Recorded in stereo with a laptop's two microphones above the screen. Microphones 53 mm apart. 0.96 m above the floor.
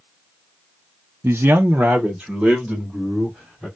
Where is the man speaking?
45° right (ahead or behind), 0.5 m; by 3.7 s 5° left (ahead or behind), 2.5 m.